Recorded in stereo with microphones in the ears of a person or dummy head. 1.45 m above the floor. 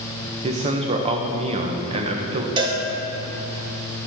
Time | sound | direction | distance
0.4 | a man speaking | 30° right (ahead or behind) | 1.1 m
2.6 | a cowbell | 30° right (ahead or behind) | 1.4 m